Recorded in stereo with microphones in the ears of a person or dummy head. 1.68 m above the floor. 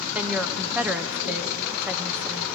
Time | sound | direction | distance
0.1 | a woman speaking | centre (ahead or behind) | 0.6 m